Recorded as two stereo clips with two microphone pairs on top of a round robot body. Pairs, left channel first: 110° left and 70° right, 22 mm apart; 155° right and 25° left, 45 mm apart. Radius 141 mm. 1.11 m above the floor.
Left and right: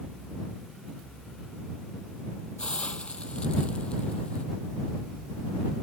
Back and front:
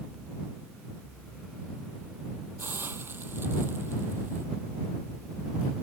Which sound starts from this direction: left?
A hiss, at 2.6 s.